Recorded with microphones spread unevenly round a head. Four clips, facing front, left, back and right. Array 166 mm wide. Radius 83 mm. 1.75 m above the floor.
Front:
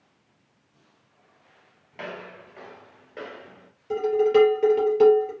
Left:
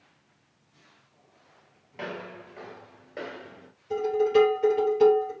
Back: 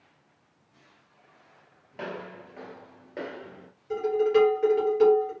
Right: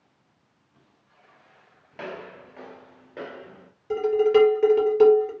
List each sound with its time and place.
1.9 s footsteps: 45° right, 1.8 m; by 3.7 s straight behind, 1.8 m
3.9 s dishes clattering: 60° right, 3 m